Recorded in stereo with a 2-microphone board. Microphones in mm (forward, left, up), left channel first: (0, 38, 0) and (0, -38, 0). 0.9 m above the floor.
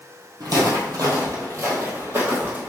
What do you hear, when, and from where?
0.4 s footsteps: 55° right (ahead or behind), 1.5 m; by 2.7 s 25° right (ahead or behind), 1.7 m